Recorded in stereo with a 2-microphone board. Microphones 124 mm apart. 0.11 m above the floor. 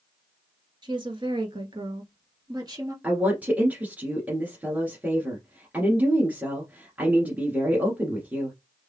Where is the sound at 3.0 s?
15° right (ahead or behind), 1.7 m.